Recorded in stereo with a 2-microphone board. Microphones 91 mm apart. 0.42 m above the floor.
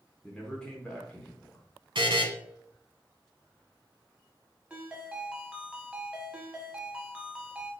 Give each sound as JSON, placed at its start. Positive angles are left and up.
{"t": 0.2, "sound": "a man speaking", "side_deg": 10, "distance_m": 0.7}
{"t": 1.9, "sound": "a buzzer", "side_deg": -70, "distance_m": 0.8}
{"t": 4.7, "sound": "a ringtone", "side_deg": -10, "distance_m": 1.0}